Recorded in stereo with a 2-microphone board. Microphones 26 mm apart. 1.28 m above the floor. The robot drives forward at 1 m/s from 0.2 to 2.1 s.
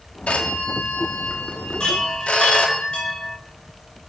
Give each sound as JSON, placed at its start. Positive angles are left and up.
{"t": 0.3, "sound": "a phone ringing", "side_deg": 60, "distance_m": 1.8}
{"t": 1.8, "sound": "a chime", "side_deg": 40, "distance_m": 6.5}